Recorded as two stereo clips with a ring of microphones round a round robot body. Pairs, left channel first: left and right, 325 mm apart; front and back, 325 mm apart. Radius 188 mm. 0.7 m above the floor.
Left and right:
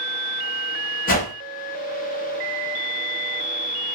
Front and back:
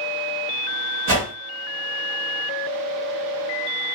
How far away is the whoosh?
About 1.1 m.